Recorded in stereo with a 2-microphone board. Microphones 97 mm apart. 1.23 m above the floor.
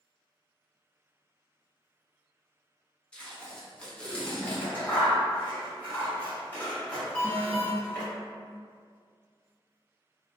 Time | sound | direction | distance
3.1 | tape being pulled | 10° left (ahead or behind) | 0.6 m
4.4 | scissors | 20° left (ahead or behind) | 1.0 m
7.2 | an alarm | 15° left (ahead or behind) | 0.6 m